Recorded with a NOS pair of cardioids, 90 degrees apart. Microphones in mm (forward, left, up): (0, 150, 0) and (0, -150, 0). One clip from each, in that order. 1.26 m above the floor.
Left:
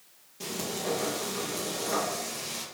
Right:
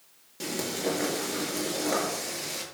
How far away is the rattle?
No rattle in this recording.